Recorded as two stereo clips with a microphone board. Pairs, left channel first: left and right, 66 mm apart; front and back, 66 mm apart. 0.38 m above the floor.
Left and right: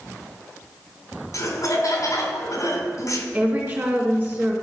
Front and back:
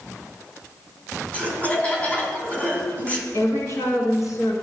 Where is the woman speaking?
30° right, 3.5 m.